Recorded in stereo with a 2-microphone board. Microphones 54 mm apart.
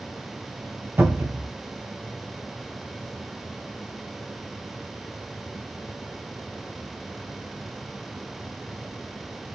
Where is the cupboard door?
45° right (ahead or behind), 1.0 m.